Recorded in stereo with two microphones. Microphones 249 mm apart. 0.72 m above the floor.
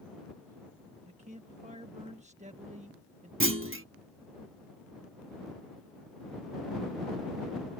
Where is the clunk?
55° right (ahead or behind).